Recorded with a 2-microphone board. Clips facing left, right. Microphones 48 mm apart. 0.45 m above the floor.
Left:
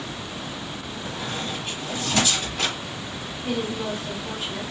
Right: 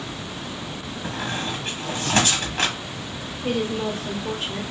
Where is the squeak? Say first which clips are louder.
Right 3 dB; 65° right (ahead or behind), 1.5 m.